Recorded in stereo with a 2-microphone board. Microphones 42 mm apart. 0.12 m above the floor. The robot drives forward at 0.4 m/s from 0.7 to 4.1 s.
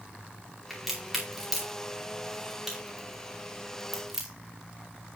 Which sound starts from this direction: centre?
A crack, at 0.7 s.